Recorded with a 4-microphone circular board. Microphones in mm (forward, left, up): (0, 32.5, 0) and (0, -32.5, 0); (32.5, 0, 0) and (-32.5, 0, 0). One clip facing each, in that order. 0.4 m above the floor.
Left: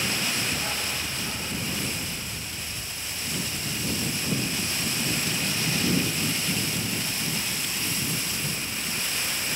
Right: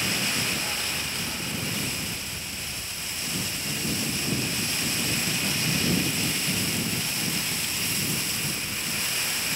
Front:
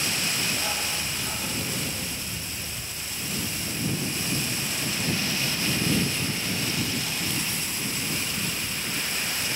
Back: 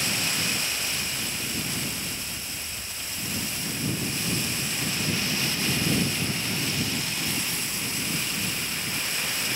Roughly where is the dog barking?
Ahead.